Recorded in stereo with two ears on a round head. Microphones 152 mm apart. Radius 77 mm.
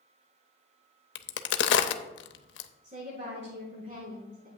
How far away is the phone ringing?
I don't hear a phone ringing.